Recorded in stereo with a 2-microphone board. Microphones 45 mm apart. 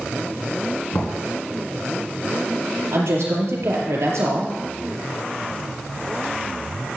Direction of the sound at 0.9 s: 55° left (ahead or behind).